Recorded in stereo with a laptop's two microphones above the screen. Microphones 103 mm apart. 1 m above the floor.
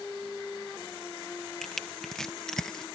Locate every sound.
1.6 s crushing: 5° left (ahead or behind)